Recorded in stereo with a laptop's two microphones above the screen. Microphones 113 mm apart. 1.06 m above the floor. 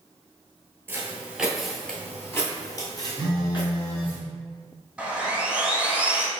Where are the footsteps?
20° right (ahead or behind), 1.1 m; by 4.2 s 50° left (ahead or behind), 1.7 m.